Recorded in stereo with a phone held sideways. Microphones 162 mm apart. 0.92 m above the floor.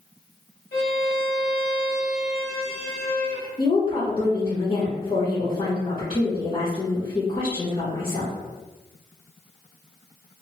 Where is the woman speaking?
35° left (ahead or behind), 0.9 m.